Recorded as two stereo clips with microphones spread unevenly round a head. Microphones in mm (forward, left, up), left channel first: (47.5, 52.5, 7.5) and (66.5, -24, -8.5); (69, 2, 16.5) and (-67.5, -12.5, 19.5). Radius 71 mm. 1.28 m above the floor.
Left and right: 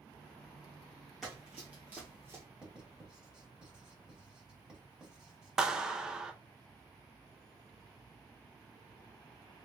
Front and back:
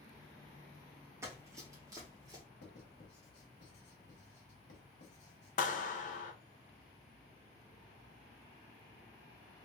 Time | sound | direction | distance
1.2 | running footsteps | 170° left | 1.3 m
2.6 | writing | 5° left | 1.4 m
5.6 | a clap | 15° left | 0.5 m